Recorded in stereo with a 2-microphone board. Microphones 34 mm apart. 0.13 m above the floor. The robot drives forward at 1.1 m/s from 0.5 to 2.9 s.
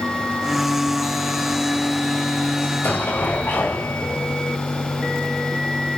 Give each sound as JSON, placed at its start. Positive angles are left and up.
{"t": 2.6, "sound": "an explosion", "side_deg": 70, "distance_m": 7.5}